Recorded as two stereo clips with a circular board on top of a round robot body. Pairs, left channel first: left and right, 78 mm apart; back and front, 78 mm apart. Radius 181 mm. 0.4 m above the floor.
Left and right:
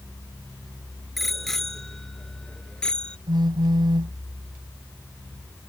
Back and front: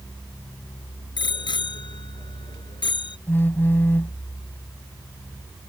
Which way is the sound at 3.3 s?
115° right.